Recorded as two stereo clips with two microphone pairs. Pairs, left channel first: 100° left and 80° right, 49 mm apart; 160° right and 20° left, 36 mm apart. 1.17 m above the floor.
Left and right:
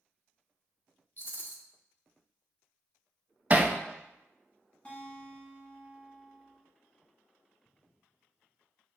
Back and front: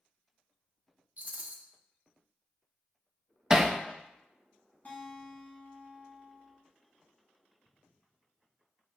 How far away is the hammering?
About 0.5 m.